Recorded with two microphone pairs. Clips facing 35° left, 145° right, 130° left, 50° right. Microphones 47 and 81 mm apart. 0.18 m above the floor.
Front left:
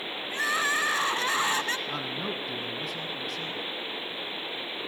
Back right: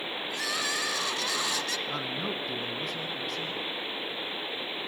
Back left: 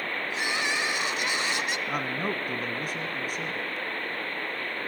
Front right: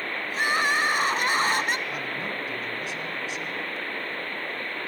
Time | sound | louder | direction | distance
0.3 | crying | front left 7 dB, front right 7 dB | 10° right | 0.9 m
1.9 | a man speaking | even, back left 2 dB | 125° left | 1.5 m